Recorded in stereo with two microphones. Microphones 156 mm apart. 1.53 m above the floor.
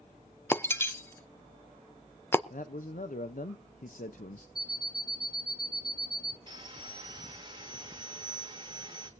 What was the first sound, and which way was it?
Breaking glass, 15° left (ahead or behind).